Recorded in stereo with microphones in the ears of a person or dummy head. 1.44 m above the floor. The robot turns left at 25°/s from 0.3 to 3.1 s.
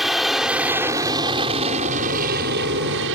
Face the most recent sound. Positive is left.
turn(degrees=-70)